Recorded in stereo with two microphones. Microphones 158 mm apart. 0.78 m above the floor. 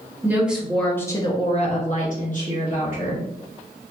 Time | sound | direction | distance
0.2 | a woman speaking | 10° right (ahead or behind) | 1.3 m